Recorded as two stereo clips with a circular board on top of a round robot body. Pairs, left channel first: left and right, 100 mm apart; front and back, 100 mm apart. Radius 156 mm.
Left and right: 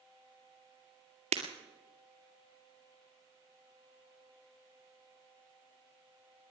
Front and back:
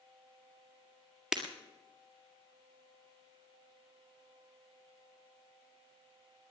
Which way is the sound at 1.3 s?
95° right.